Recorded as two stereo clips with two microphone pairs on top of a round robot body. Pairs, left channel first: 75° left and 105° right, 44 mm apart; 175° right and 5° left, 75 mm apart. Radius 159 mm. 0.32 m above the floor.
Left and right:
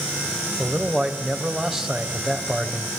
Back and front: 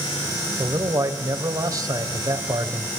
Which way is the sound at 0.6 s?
25° right.